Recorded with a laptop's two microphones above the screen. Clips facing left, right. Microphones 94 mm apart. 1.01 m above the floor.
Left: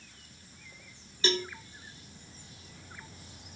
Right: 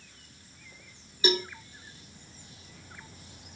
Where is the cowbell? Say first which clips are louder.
Right 3 dB; 10° right (ahead or behind), 0.6 m.